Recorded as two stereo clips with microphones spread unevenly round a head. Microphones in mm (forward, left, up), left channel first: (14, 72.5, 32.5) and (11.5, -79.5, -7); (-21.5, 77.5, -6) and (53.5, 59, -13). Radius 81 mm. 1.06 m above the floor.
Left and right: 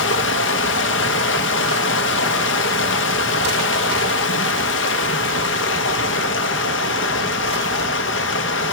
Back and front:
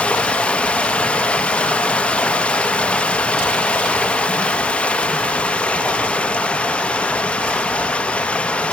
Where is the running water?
90° left, 1.2 m.